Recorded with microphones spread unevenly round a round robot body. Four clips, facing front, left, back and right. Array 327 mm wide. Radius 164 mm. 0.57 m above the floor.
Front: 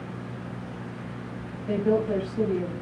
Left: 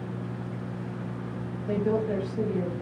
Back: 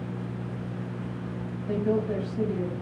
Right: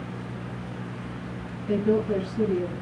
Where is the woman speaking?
30° left, 3 m.